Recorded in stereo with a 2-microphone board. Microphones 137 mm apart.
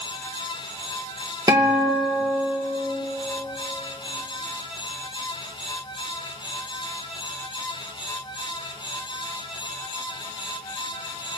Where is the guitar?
30° right (ahead or behind), 2 m.